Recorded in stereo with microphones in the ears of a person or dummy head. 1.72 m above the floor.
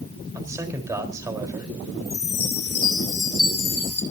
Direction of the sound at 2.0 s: 5° left (ahead or behind).